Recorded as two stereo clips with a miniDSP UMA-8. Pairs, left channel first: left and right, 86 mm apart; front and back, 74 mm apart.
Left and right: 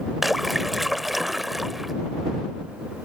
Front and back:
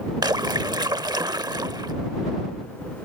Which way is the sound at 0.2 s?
175° right.